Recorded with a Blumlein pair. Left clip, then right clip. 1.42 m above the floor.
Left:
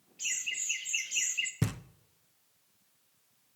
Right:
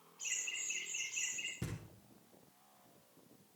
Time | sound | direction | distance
0.2 | laughter | 35° left | 2.5 m
1.6 | knocking | 55° left | 0.5 m